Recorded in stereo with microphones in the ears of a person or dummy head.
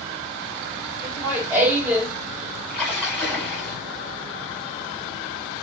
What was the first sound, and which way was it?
Laughter, 10° right (ahead or behind).